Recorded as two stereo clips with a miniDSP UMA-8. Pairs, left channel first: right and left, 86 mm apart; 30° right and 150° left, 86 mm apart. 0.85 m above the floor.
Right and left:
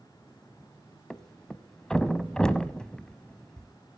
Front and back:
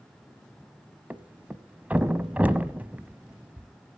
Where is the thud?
160° right, 0.7 m.